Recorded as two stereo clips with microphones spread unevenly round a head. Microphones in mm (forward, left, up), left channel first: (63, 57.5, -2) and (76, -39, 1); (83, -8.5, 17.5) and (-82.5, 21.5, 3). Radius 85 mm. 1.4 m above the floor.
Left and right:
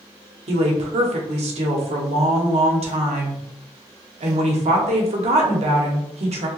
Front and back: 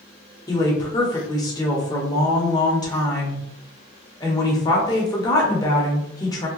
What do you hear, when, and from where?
0.5 s a woman speaking: 80° right, 1.1 m